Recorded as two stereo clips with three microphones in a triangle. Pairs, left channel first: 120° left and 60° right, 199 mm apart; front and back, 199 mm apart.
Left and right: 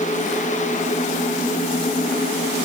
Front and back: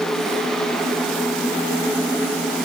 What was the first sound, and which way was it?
Only background noise.